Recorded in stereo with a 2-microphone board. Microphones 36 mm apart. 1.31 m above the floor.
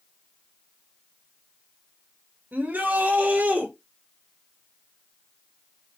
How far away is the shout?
About 2.5 m.